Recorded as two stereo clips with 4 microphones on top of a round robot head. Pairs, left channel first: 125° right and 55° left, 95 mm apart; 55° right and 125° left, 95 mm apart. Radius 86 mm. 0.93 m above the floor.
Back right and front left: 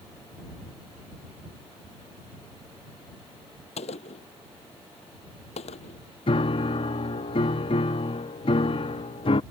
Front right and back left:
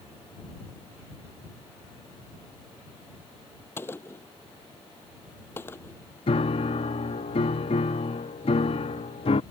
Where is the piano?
85° right.